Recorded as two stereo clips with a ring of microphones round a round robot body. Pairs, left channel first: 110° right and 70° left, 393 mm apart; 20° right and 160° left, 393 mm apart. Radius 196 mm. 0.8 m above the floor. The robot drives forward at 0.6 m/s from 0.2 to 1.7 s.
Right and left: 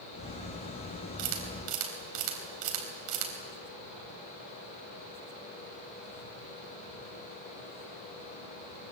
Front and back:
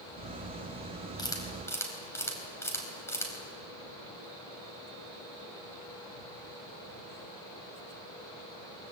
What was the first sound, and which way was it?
A camera shutter, 60° left.